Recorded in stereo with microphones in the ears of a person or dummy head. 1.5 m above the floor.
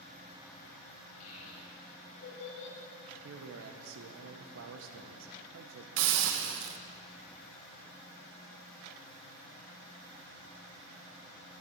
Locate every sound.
1.2 s a child speaking: 80° left, 2.5 m; by 2.8 s 70° left (ahead or behind), 2 m
3.2 s a man speaking: 80° right, 0.8 m
6.0 s a hiss: 70° right (ahead or behind), 1.1 m